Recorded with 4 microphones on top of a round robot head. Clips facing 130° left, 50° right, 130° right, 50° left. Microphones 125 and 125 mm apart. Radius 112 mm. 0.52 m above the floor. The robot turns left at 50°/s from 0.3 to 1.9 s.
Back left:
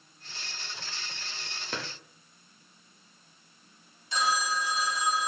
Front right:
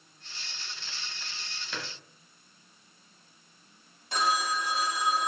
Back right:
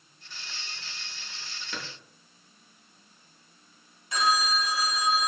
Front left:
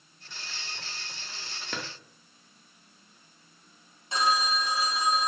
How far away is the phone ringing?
About 0.5 m.